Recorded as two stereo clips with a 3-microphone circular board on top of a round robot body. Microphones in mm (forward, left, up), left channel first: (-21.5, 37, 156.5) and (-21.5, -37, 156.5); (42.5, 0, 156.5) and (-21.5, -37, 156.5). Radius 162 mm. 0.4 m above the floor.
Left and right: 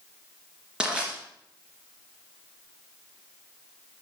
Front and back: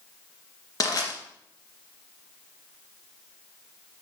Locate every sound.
0.8 s crushing: 10° right, 2.5 m